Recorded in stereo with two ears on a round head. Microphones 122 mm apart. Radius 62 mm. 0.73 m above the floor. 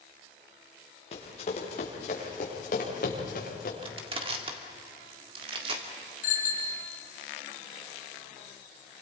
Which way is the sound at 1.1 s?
45° left (ahead or behind).